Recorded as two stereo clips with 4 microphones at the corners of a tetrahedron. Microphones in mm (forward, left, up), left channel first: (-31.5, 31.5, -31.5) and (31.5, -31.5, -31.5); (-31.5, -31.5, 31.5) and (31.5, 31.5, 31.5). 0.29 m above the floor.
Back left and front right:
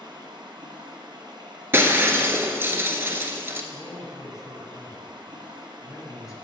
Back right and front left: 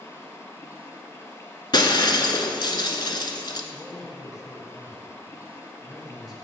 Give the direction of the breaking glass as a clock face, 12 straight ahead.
4 o'clock.